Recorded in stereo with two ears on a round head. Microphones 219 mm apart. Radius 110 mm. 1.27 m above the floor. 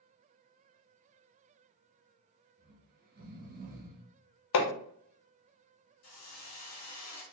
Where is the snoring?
35° right (ahead or behind), 0.7 m.